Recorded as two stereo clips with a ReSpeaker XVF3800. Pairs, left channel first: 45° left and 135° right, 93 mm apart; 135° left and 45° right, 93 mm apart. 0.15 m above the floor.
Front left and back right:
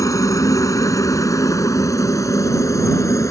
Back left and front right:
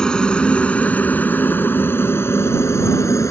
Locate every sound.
0.0 s a helicopter: 60° left; by 3.3 s 90° left